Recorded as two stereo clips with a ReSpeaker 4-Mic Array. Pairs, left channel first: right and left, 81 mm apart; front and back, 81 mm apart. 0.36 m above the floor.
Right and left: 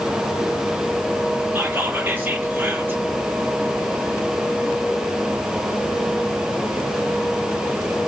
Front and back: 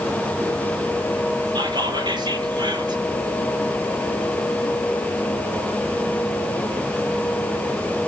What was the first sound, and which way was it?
Whispering, 160° left.